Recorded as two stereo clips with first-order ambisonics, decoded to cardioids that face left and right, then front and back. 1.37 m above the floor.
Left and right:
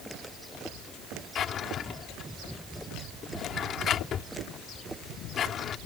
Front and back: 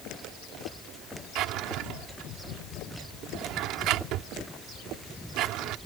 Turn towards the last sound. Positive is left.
turn(degrees=145)